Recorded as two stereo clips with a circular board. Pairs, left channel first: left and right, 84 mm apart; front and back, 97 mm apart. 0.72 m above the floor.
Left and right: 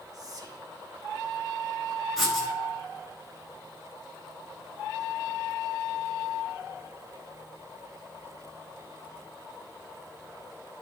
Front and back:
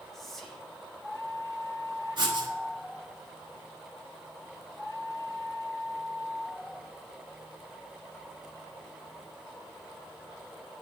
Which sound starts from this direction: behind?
Writing, at 2.2 s.